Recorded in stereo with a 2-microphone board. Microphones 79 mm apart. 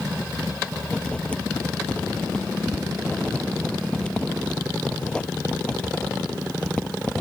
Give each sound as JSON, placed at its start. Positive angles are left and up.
{"t": 0.9, "sound": "writing", "side_deg": 15}